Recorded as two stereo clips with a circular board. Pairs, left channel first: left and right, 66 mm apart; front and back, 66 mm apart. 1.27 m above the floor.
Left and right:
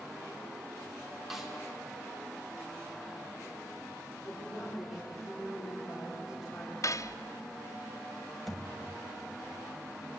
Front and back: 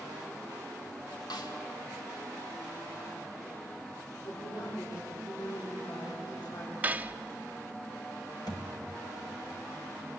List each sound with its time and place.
1.3 s a snare drum: 5° right, 2.5 m
4.2 s a woman speaking: 5° right, 4 m
6.8 s cutlery clinking: 115° left, 0.6 m
8.5 s a thud: straight ahead, 2.5 m